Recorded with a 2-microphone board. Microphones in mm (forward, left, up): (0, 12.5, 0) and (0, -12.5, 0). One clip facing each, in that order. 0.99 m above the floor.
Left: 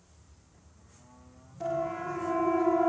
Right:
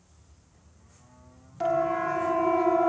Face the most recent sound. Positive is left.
turn(degrees=-25)  # may be behind; listen again after turning